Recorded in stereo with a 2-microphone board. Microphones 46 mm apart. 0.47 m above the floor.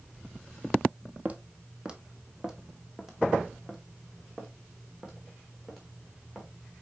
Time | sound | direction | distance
1.2 | footsteps | 30° right (ahead or behind) | 0.7 m